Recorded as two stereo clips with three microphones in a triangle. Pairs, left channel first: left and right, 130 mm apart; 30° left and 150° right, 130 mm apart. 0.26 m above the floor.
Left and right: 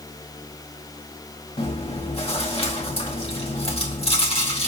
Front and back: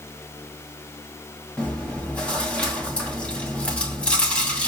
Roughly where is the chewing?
Left.